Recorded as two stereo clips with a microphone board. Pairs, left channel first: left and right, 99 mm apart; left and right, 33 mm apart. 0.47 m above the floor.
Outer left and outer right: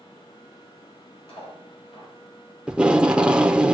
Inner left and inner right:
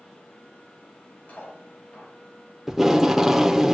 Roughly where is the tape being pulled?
Centre.